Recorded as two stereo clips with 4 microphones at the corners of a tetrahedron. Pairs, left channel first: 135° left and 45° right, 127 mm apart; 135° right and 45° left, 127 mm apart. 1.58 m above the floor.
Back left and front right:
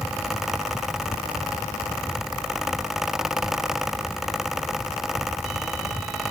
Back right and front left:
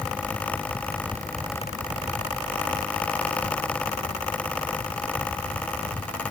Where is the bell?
I don't hear a bell.